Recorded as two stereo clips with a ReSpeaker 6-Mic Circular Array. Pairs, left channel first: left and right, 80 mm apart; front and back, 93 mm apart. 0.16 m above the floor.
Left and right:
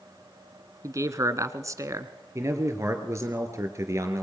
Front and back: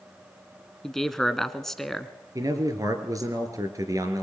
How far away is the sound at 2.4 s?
About 3.5 m.